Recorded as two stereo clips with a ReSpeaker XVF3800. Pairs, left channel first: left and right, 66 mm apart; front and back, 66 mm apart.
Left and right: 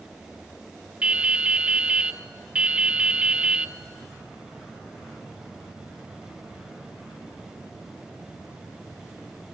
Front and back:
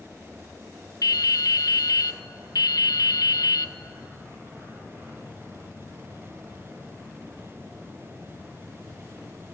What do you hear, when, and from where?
1.0 s dripping: 15° right, 0.6 m